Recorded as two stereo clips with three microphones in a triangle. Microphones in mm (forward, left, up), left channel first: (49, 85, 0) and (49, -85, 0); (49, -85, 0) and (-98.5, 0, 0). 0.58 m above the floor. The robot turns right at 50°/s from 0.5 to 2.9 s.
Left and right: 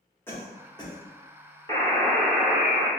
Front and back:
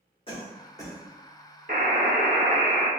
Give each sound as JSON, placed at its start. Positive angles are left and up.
{"t": 0.3, "sound": "a cough", "azimuth_deg": 15, "distance_m": 1.2}
{"t": 1.7, "sound": "a buzzer", "azimuth_deg": 155, "distance_m": 0.8}